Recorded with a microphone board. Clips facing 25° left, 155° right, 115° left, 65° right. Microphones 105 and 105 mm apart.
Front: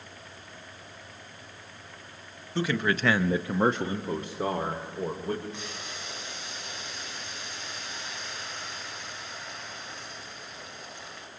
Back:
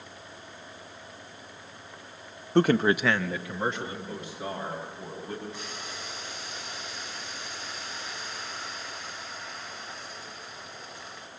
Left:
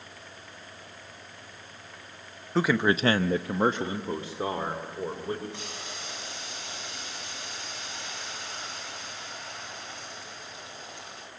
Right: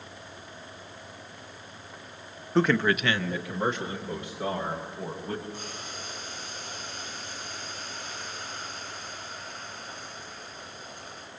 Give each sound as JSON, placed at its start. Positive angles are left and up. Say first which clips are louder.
{"t": 2.5, "sound": "a man speaking", "louder": "back 6 dB, right 1 dB", "azimuth_deg": -160, "distance_m": 0.8}
{"t": 5.5, "sound": "boiling", "louder": "even, right 1 dB", "azimuth_deg": 115, "distance_m": 5.5}